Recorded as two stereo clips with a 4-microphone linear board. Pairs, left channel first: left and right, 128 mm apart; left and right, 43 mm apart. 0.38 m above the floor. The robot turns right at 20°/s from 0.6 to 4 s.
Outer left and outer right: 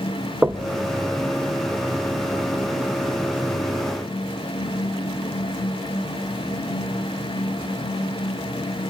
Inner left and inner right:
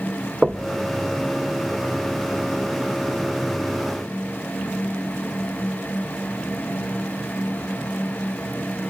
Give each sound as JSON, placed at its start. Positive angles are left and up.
{"t": 0.4, "sound": "knocking", "side_deg": -15, "distance_m": 0.7}